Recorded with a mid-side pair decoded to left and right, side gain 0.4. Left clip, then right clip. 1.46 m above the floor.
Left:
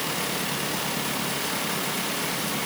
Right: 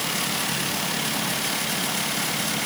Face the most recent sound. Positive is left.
No sound to turn to.